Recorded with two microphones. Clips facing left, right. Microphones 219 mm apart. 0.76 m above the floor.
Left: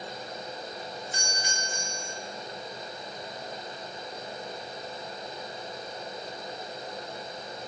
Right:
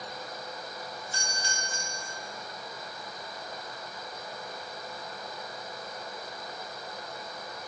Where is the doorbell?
15° left (ahead or behind), 2.5 m.